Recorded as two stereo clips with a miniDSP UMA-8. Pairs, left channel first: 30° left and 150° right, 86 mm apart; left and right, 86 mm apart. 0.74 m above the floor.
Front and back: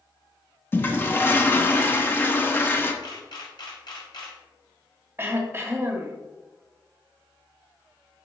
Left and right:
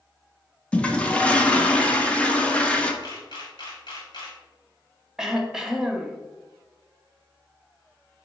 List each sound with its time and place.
0.7 s a toilet flushing: 35° left, 0.9 m
3.0 s a camera shutter: 60° left, 3 m
5.2 s throat clearing: 165° right, 1.0 m